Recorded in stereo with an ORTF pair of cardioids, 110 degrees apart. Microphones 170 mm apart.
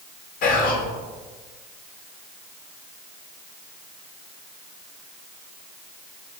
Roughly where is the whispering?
Ahead left.